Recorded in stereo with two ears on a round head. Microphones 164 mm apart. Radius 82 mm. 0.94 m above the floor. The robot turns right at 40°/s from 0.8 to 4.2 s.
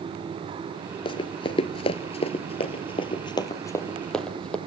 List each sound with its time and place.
1.1 s running footsteps: 30° left (ahead or behind), 1.1 m; by 4.6 s 5° left (ahead or behind), 2 m